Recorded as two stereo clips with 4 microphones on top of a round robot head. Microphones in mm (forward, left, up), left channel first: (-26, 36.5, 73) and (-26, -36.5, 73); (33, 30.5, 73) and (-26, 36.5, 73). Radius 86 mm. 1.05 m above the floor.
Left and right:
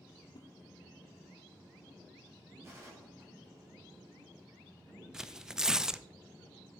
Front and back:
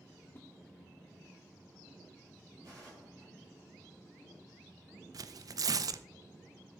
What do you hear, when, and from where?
0.3 s a whoosh: 50° left, 1.0 m
2.6 s a gunshot: 145° right, 6 m
5.1 s tearing paper: 170° right, 0.6 m